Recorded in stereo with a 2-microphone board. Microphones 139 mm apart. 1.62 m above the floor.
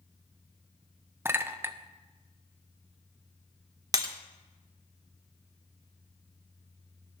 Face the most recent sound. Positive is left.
turn(degrees=-25)  # may be behind; listen again after turning